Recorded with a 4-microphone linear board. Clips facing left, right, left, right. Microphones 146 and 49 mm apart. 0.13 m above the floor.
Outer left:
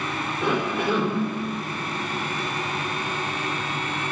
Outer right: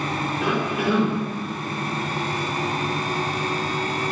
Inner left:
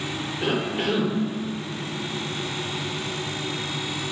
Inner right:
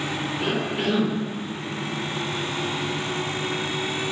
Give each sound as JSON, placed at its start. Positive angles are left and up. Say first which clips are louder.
{"t": 0.4, "sound": "a cough", "louder": "even, inner left 1 dB", "side_deg": -5, "distance_m": 4.5}